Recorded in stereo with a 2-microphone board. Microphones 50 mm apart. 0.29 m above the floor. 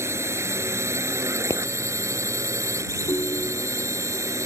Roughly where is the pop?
Left.